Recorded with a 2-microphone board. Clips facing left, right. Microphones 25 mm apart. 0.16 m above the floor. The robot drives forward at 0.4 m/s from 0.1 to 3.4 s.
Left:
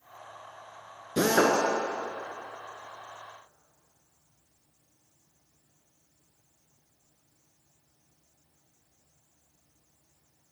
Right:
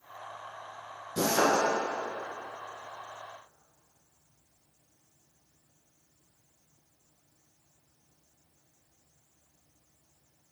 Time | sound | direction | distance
1.2 | a drill | 55° left (ahead or behind) | 0.8 m